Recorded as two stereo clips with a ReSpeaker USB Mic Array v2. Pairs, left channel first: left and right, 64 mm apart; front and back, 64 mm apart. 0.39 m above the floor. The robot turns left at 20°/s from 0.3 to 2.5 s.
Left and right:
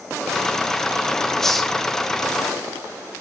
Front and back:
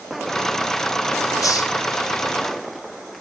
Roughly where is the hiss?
Ahead.